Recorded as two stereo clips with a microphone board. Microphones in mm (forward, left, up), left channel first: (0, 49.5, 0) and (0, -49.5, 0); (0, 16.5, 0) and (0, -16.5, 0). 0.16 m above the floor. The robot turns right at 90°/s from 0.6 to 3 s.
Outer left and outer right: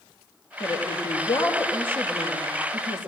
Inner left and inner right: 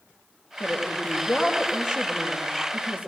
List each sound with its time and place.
0.6 s a woman speaking: 85° left, 3 m; by 3.1 s 55° right, 3 m